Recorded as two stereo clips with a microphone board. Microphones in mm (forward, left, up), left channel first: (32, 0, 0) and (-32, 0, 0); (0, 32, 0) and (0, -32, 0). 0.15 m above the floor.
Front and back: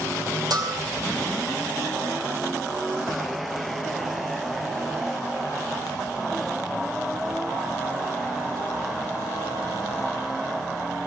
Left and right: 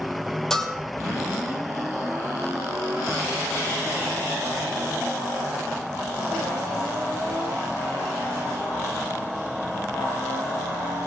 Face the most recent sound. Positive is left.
turn(degrees=170)